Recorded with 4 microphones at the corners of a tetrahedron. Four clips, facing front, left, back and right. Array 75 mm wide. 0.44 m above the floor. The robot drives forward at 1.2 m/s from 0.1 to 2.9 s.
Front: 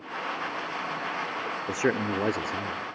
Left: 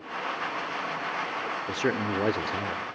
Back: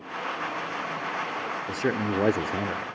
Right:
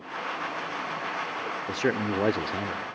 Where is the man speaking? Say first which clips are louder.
Right 1 dB, front 1 dB; 5° right, 0.9 m; by 3.0 s straight behind, 1.4 m.